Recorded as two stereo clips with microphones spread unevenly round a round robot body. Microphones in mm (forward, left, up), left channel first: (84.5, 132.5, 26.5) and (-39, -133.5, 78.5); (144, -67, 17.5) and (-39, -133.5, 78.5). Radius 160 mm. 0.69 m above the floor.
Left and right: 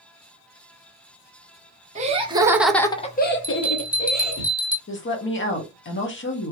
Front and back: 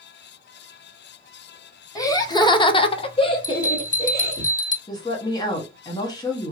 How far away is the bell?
About 1.4 m.